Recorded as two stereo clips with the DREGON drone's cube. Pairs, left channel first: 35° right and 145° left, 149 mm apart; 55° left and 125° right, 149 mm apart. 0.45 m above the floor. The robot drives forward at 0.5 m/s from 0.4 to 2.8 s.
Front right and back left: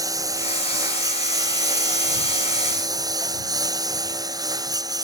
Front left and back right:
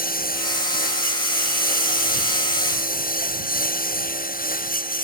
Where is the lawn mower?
80° left.